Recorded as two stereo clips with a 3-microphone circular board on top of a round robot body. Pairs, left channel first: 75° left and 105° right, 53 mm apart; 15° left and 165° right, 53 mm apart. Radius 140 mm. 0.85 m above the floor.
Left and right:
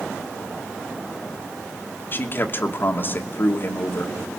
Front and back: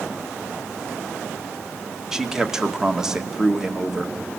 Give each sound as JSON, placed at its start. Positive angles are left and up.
{"t": 2.1, "sound": "a man speaking", "azimuth_deg": 115, "distance_m": 1.4}